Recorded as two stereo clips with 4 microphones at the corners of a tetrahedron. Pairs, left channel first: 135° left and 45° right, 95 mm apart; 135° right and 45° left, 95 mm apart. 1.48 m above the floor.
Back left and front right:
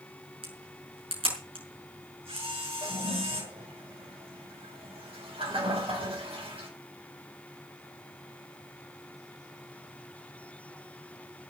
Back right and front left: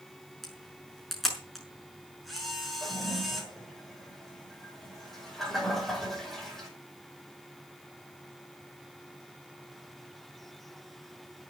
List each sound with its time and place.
0.4 s a camera shutter: 45° right, 6 m
2.8 s a toilet flushing: 50° right, 6.5 m